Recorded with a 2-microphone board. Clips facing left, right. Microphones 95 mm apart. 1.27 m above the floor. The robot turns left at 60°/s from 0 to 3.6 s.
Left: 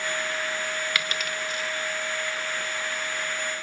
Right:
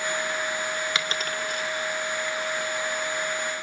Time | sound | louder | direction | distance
0.9 | a dropped coin | right 1 dB | 20° right (ahead or behind) | 1.5 m